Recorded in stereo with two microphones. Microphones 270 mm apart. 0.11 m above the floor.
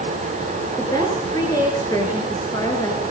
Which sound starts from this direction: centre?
A woman speaking, at 0.8 s.